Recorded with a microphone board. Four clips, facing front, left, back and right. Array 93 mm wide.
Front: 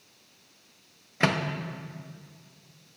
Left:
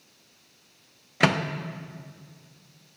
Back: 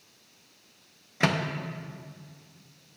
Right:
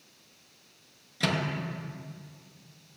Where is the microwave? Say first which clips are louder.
Left 7 dB, even; 80° left, 0.6 m.